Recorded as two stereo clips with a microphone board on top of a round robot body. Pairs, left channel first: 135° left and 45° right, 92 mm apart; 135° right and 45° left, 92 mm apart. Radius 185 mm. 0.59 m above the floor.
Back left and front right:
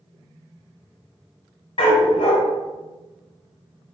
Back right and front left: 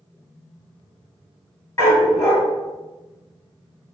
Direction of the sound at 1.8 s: 160° left.